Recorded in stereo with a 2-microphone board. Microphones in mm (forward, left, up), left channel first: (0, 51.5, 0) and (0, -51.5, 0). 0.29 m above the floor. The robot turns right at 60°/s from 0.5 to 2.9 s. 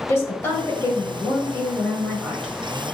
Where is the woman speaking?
25° left (ahead or behind), 1.5 m; by 2.5 s centre (ahead or behind), 1.5 m.